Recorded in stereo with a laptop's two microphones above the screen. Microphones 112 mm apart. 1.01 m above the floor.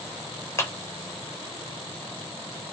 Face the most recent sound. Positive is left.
turn(degrees=20)  # may be behind; listen again after turning